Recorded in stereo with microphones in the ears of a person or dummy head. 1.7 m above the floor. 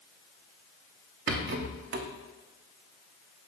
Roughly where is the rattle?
Right.